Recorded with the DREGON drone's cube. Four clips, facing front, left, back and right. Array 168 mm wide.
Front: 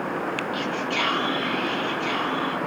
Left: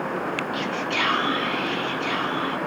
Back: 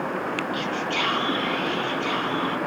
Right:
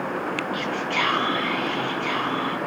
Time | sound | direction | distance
0.5 | whispering | 85° right | 8.5 m